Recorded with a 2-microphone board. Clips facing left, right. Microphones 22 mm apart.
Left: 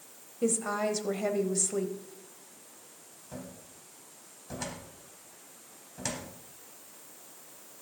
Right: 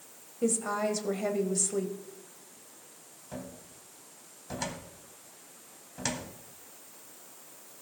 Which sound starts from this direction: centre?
A woman speaking, at 0.4 s.